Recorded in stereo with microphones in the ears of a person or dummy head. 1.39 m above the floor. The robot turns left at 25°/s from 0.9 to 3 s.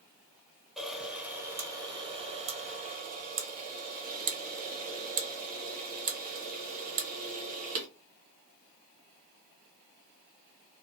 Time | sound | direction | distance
0.8 | a camera shutter | centre (ahead or behind) | 0.7 m